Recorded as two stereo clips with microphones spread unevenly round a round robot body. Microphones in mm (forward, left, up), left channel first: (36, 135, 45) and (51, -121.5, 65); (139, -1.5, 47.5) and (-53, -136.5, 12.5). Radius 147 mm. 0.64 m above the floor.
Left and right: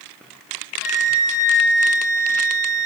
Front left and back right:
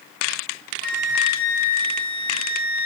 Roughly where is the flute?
Ahead.